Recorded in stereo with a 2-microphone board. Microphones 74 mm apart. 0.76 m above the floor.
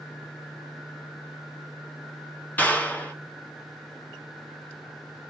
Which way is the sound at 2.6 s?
25° left (ahead or behind).